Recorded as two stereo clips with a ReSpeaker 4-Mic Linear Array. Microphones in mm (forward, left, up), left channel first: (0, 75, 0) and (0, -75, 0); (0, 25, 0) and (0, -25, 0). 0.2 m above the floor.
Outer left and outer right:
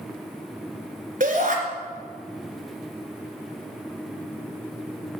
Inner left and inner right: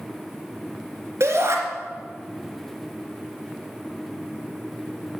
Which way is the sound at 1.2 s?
65° right (ahead or behind).